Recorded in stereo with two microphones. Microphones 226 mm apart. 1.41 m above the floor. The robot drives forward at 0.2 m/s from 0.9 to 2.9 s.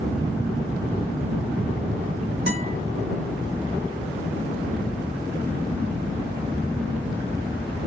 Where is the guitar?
45° right (ahead or behind), 2.5 m.